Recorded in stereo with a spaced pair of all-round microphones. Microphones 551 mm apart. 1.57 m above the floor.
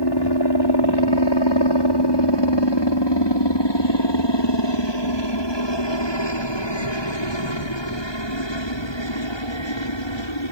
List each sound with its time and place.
0.0 s a helicopter: 45° left (ahead or behind); by 10.5 s 55° left (ahead or behind)